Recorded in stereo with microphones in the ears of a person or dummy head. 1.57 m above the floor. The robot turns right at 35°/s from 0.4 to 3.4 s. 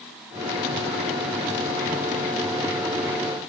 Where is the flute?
I don't hear a flute.